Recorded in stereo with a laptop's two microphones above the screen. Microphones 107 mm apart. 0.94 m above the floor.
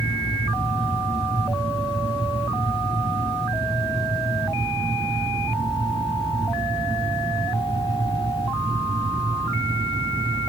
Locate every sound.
0.0 s a fan: 65° right (ahead or behind), 1.8 m